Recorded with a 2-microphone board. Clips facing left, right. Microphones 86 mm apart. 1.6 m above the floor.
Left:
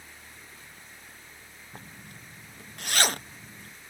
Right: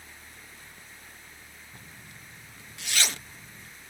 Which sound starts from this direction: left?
A zipper, at 1.7 s.